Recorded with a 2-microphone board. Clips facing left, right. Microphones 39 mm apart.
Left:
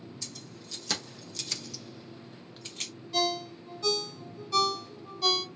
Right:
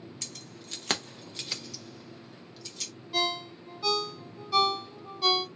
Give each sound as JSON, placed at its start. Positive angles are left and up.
{"t": 0.2, "sound": "keys jangling", "side_deg": -60, "distance_m": 1.0}
{"t": 3.1, "sound": "a ringtone", "side_deg": -15, "distance_m": 0.8}